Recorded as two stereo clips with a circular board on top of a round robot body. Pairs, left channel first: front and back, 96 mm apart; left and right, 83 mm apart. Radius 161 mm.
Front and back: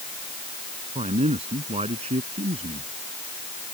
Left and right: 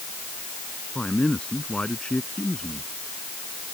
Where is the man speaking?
170° left.